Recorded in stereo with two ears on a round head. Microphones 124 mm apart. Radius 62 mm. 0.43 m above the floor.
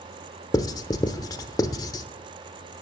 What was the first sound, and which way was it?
Writing, 25° left (ahead or behind).